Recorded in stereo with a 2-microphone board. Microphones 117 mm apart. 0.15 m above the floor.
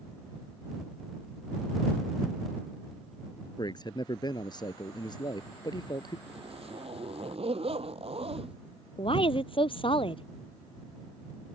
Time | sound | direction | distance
3.6 | a man speaking | 40° left (ahead or behind) | ?
6.3 | a zipper | 60° right (ahead or behind) | ?
9.0 | a woman speaking | 50° left (ahead or behind) | ?